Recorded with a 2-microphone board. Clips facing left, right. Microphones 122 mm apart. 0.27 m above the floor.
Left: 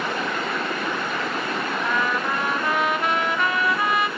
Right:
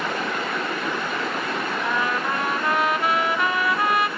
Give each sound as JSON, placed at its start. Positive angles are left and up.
{"t": 1.8, "sound": "a trumpet", "side_deg": -5, "distance_m": 1.9}